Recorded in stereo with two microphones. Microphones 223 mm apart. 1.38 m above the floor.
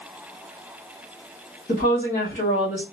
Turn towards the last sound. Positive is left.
turn(degrees=35)  # may be behind; listen again after turning